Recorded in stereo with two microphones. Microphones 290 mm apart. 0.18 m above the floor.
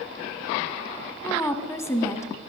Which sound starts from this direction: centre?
A woman speaking, at 1.2 s.